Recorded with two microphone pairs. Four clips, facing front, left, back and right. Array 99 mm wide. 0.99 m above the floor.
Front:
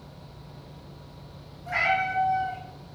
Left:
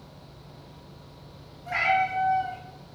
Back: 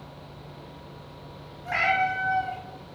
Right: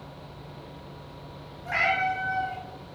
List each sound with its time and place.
1.6 s a cat meowing: 145° right, 1.3 m